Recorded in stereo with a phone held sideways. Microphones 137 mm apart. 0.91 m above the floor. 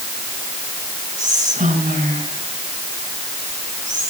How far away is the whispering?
About 4 m.